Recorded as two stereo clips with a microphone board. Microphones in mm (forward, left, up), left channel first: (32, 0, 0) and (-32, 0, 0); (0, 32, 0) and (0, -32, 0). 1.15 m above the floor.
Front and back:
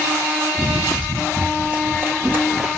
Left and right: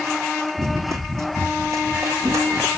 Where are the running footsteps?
95° right, 1.7 m; by 2.8 s 130° right, 2.5 m.